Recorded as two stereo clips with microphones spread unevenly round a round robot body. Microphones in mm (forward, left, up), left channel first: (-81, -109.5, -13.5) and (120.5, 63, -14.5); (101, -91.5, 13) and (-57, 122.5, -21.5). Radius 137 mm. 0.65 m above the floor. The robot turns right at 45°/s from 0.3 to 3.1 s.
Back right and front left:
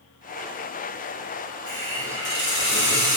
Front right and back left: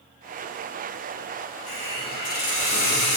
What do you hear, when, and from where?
1.7 s a hiss: 145° right, 1.2 m; by 3.2 s 80° right, 1.2 m